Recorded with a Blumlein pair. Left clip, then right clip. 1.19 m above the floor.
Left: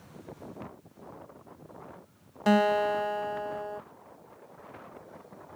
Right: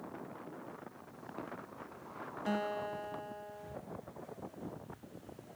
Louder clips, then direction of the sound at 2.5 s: Left 13 dB; 55° left.